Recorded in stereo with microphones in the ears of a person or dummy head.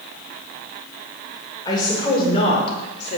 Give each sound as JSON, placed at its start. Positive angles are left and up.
{"t": 1.6, "sound": "a woman speaking", "side_deg": 20, "distance_m": 6.0}